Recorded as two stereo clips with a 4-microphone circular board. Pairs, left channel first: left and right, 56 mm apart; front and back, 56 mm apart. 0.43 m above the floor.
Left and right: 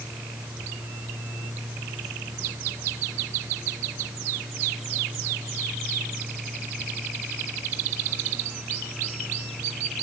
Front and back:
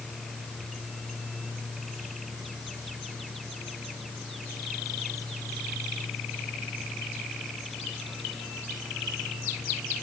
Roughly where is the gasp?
No gasp in this recording.